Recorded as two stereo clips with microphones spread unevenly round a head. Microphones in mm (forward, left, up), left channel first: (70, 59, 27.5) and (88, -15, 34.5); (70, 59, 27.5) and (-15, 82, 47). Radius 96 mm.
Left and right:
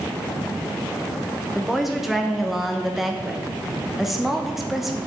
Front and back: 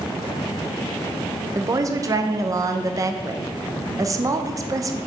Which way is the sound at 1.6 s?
170° right.